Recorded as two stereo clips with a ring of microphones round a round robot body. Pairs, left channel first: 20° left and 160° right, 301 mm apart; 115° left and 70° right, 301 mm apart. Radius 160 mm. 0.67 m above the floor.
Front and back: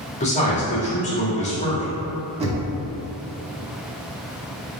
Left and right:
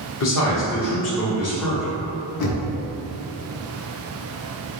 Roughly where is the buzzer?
No buzzer in this recording.